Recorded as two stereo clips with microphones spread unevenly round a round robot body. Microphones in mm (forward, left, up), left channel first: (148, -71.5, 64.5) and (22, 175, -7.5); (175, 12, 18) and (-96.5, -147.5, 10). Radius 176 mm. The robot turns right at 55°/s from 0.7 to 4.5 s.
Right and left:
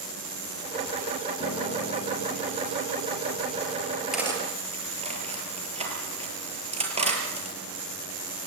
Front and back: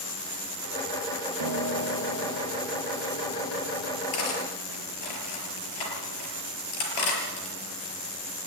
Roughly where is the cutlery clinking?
Ahead left.